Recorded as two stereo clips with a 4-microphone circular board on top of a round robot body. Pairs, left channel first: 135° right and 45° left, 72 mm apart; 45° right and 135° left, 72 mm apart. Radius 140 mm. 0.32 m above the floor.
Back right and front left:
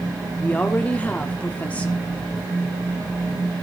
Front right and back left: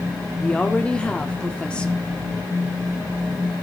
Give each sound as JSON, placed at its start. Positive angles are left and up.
{"t": 0.4, "sound": "a woman speaking", "azimuth_deg": -100, "distance_m": 1.3}